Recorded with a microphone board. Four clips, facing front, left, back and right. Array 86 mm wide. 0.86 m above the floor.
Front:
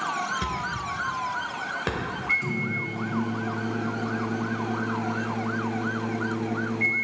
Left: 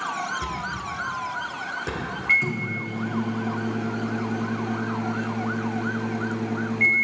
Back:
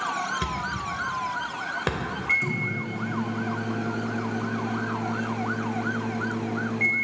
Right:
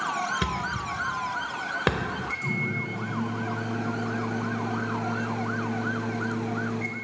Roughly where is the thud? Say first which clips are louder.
Right 1 dB, even; right.